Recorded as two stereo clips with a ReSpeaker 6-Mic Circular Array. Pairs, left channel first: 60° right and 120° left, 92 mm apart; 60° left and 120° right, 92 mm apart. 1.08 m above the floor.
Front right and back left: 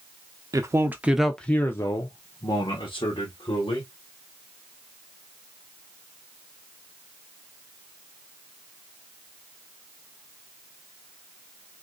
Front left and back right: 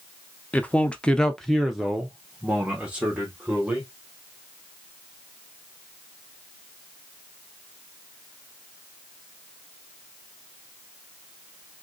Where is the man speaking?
125° left, 0.6 m; by 3.9 s 40° right, 1.4 m.